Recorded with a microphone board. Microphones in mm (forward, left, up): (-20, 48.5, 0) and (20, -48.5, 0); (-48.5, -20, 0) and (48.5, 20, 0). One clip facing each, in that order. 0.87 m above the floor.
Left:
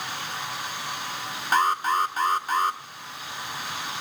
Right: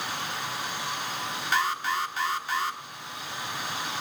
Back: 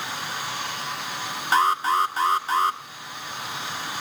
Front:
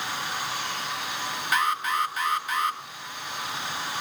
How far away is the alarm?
About 1.1 m.